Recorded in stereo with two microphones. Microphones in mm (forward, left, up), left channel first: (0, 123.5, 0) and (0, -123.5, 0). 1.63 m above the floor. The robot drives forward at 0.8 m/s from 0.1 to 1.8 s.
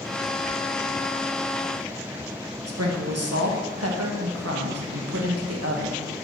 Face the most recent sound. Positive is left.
turn(degrees=-75)  # may be behind; listen again after turning